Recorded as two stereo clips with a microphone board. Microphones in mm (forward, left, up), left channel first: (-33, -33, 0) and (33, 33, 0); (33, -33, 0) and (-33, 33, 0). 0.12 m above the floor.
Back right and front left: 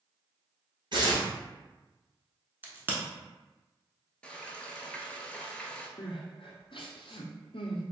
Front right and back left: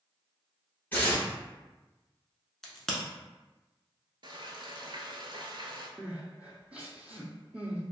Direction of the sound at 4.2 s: 150° left.